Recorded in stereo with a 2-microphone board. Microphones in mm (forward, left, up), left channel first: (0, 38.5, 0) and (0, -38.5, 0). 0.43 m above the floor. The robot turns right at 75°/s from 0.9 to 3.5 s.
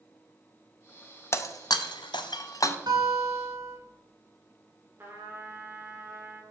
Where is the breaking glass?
35° left (ahead or behind), 0.5 m.